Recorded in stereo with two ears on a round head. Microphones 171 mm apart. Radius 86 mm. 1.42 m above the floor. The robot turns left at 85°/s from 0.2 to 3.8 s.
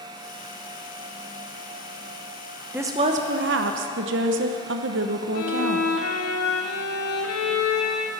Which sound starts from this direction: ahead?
A woman speaking, at 2.7 s.